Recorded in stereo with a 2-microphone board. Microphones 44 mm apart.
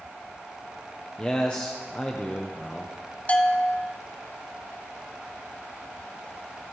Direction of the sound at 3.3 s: 30° left (ahead or behind).